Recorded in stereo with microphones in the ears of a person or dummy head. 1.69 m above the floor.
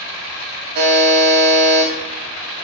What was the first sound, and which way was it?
A buzzer, 50° right (ahead or behind).